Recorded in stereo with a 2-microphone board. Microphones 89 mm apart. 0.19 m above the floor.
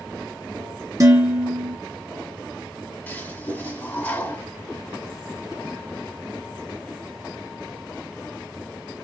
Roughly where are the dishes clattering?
Right.